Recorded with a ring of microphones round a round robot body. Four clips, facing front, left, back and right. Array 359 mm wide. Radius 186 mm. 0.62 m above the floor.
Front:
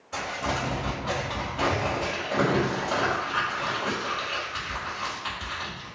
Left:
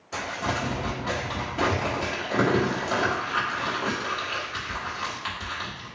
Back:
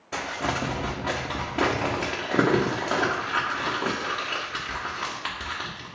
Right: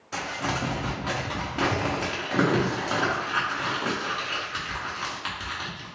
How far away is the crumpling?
About 1.4 m.